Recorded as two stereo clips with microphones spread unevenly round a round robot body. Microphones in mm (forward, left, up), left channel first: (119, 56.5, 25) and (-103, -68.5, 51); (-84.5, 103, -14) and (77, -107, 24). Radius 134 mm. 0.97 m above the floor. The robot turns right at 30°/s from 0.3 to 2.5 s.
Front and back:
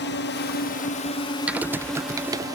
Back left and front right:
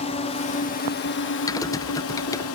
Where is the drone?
65° left; by 2.5 s 130° left.